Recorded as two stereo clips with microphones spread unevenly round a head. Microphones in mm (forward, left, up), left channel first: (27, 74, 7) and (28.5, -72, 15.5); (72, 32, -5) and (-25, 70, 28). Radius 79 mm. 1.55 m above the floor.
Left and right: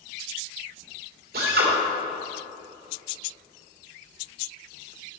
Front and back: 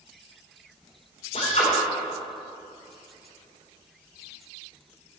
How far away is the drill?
About 2.5 m.